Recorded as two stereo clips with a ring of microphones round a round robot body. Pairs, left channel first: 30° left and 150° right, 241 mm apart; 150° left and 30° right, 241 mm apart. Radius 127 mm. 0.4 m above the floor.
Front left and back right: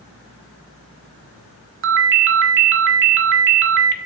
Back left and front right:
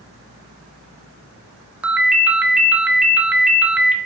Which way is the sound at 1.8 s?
115° right.